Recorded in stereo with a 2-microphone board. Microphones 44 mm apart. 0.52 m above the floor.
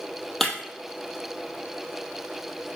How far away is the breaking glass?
About 2 m.